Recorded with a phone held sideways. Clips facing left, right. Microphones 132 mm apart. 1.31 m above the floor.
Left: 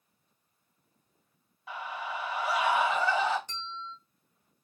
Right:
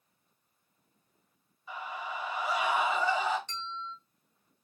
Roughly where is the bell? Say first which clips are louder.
Right 1 dB; centre.